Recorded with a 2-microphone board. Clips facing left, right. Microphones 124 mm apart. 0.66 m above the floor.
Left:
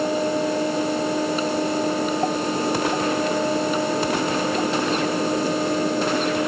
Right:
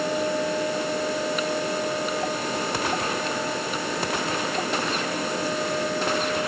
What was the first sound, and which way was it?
Only background noise.